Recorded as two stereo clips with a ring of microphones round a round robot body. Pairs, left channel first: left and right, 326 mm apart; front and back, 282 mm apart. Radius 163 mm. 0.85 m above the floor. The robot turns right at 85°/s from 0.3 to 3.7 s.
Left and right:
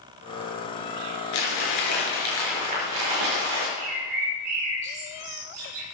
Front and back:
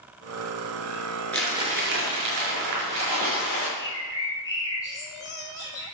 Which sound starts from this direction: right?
A bird, at 3.8 s.